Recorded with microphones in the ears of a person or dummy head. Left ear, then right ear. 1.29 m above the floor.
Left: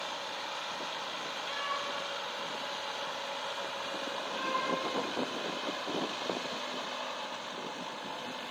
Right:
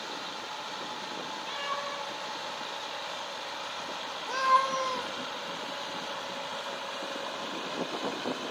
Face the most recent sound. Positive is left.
turn(degrees=-65)  # may be behind; listen again after turning